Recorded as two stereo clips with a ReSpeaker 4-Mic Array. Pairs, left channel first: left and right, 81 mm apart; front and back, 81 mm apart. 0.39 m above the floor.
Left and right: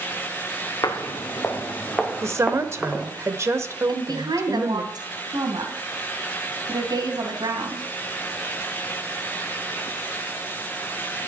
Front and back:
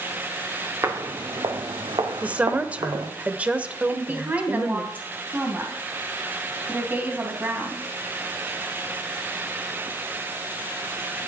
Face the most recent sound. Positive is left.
turn(degrees=-115)